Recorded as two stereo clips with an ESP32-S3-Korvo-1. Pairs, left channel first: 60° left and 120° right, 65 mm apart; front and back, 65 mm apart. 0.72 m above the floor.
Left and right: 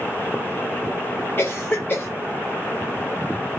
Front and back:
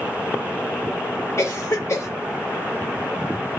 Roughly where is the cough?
Ahead.